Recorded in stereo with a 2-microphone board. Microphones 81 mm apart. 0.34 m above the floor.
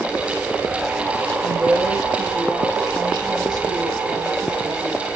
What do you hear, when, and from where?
1.4 s a woman speaking: 60° right (ahead or behind), 7 m; by 5.1 s 50° right (ahead or behind), 9 m